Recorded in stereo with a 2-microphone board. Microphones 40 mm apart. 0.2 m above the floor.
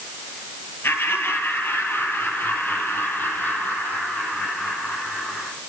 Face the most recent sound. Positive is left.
turn(degrees=45)  # may be behind; listen again after turning